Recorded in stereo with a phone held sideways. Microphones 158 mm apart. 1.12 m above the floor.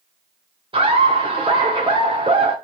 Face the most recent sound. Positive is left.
turn(degrees=-35)  # may be behind; listen again after turning